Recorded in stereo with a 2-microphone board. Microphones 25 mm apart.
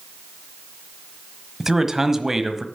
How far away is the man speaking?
About 1.2 m.